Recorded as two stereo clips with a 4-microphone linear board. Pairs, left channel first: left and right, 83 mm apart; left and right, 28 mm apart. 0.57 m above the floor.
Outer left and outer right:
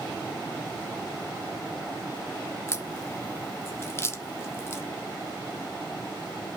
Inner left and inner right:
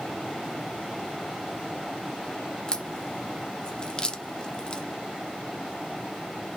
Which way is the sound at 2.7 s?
30° left (ahead or behind).